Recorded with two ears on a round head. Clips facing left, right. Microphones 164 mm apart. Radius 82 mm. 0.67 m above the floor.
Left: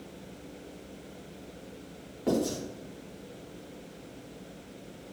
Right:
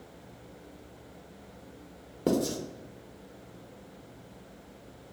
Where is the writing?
55° right (ahead or behind), 0.6 m.